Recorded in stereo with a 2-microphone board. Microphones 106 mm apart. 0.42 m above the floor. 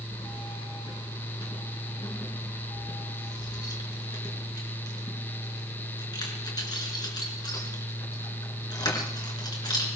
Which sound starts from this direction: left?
Keys jangling, at 0.1 s.